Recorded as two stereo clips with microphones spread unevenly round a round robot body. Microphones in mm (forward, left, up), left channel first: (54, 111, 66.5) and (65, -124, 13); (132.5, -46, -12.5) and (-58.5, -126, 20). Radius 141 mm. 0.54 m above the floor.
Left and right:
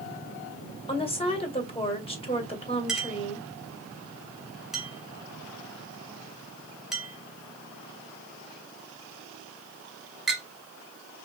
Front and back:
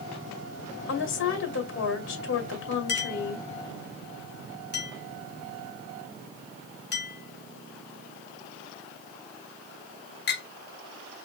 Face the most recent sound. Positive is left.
turn(degrees=-5)